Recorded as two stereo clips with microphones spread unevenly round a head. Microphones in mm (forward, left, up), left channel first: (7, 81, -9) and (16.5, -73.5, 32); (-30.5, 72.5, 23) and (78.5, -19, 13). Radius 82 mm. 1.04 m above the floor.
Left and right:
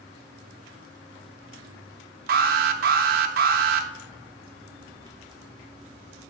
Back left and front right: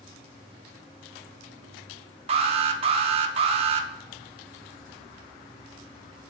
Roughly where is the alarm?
Right.